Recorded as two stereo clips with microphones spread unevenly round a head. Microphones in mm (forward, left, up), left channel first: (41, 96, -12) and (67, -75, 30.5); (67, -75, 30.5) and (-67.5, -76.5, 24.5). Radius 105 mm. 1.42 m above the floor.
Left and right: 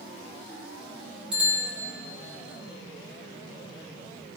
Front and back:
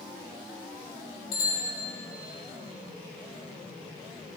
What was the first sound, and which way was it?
A bicycle bell, straight ahead.